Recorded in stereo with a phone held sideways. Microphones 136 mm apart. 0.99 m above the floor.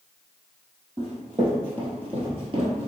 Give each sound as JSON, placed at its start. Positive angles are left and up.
{"t": 1.0, "sound": "running footsteps", "side_deg": -35, "distance_m": 2.0}